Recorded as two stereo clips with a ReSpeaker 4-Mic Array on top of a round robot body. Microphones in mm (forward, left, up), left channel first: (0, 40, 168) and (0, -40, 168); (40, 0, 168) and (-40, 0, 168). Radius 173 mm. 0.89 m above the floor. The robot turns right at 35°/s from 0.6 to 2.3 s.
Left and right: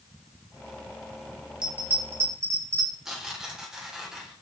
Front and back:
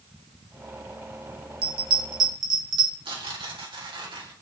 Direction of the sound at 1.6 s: 170° right.